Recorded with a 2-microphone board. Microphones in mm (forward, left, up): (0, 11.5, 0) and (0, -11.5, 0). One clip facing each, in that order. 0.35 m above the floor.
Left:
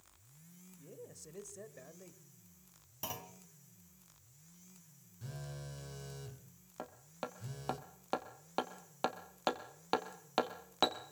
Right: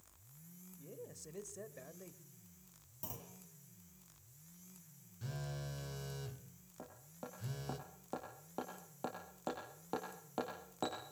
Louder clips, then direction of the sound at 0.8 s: Right 1 dB; centre (ahead or behind).